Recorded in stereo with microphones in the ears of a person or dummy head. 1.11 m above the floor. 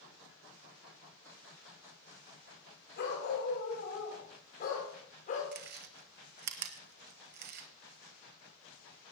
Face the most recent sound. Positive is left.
turn(degrees=-50)  # may be behind; listen again after turning